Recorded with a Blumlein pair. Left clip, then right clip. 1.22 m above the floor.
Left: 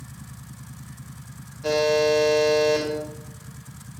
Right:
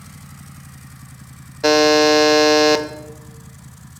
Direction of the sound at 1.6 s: 40° right.